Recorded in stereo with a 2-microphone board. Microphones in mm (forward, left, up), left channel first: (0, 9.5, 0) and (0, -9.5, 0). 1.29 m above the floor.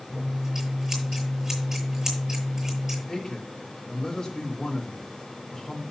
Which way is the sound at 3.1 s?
25° left (ahead or behind).